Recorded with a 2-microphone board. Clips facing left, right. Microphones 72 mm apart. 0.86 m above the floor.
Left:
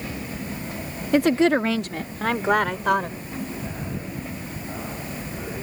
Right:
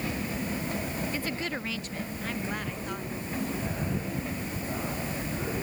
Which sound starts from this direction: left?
A woman speaking, at 1.1 s.